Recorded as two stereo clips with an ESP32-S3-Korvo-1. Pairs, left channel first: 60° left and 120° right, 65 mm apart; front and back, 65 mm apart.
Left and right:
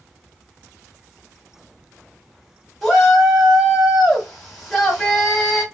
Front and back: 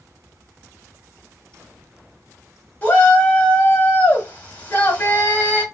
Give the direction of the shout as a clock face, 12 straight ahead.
1 o'clock.